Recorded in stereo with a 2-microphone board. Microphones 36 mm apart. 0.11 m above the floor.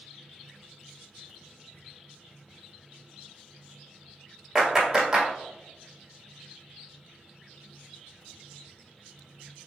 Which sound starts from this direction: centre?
A clap, at 4.5 s.